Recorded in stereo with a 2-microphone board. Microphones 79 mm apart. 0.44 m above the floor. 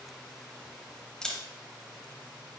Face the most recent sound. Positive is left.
turn(degrees=10)  # may be behind; listen again after turning